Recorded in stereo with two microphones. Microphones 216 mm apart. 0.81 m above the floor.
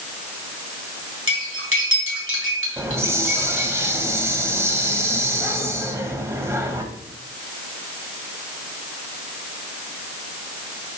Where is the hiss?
10° right (ahead or behind), 1.0 m.